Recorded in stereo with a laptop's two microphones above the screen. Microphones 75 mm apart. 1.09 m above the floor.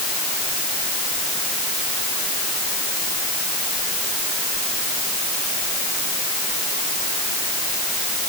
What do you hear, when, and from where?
Only background noise.